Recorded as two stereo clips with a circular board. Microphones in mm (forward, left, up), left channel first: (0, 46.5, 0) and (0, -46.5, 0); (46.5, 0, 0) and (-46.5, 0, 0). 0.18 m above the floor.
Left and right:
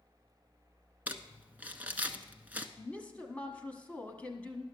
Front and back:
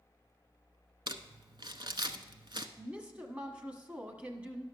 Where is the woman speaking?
135° left, 1.1 m.